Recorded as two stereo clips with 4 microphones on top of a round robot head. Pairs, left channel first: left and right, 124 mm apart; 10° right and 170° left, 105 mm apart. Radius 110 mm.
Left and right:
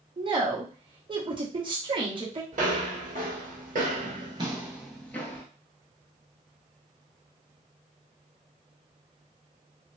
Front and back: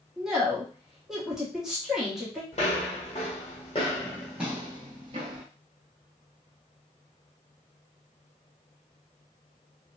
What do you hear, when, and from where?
0.2 s a woman speaking: 105° right, 1.1 m
2.5 s footsteps: 55° right, 1.3 m; by 5.5 s 155° left, 0.7 m